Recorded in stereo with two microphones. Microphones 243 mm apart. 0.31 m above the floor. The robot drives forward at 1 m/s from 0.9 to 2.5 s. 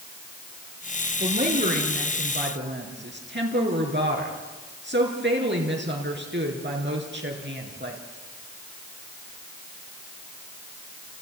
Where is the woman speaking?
35° right (ahead or behind), 5 m; by 8.0 s 50° right (ahead or behind), 4 m.